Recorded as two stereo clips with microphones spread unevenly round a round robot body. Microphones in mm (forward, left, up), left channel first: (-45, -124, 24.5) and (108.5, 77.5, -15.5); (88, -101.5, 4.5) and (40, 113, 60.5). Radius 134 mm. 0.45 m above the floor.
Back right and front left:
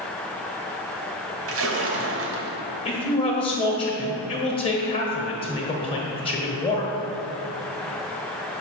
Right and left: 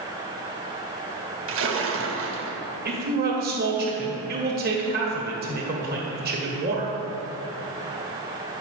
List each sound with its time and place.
1.5 s a splash: 75° left, 1.5 m
2.9 s a man speaking: 160° left, 1.7 m